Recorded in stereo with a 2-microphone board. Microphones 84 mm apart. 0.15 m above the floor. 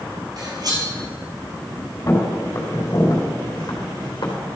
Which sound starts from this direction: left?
Footsteps, at 2.1 s.